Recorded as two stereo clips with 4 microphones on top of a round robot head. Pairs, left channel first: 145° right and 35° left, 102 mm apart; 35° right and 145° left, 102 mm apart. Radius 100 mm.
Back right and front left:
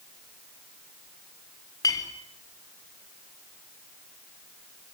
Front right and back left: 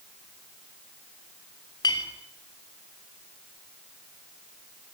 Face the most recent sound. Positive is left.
turn(degrees=-85)